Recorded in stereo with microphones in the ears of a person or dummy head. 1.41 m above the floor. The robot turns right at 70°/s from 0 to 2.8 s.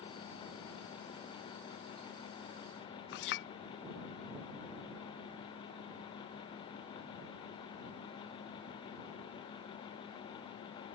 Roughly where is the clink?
Left.